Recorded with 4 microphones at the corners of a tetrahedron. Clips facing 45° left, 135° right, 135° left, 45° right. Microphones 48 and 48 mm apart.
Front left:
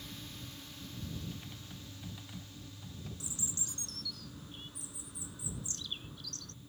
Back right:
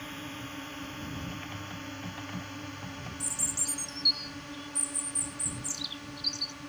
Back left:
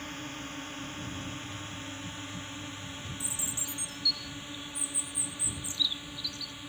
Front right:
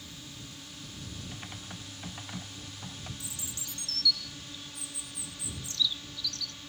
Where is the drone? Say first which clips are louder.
Back right 8 dB, back left 7 dB; straight behind; by 6.7 s 150° right.